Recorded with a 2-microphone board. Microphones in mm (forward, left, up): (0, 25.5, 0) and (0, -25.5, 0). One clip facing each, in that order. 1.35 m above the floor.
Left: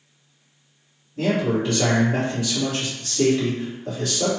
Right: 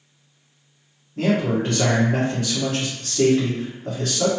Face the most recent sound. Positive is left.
turn(degrees=-45)  # may be behind; listen again after turning